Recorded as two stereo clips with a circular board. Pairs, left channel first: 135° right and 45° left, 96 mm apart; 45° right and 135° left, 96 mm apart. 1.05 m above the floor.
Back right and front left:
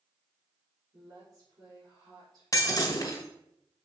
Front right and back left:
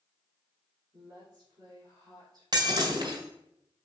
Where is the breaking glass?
170° left, 1.8 m.